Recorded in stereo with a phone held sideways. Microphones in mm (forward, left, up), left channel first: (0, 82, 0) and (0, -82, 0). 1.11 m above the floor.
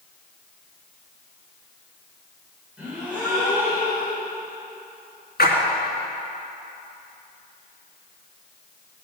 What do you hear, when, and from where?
2.8 s a gasp: 5° right (ahead or behind), 5 m
5.4 s a splash: 70° left (ahead or behind), 3 m